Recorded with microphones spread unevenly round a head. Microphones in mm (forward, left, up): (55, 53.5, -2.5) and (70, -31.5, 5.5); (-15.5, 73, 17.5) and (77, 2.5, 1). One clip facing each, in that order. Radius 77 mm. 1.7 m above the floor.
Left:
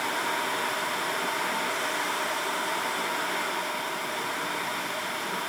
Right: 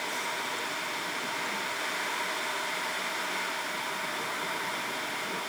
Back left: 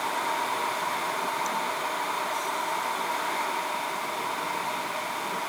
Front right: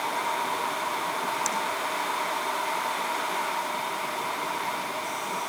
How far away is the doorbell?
No doorbell in this recording.